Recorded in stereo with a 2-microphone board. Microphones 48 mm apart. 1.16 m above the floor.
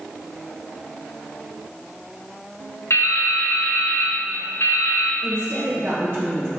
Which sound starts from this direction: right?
A woman speaking, at 5.2 s.